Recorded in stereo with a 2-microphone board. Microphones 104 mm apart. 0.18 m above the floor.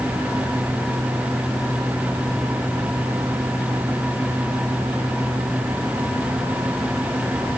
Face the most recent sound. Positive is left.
No sound to turn to.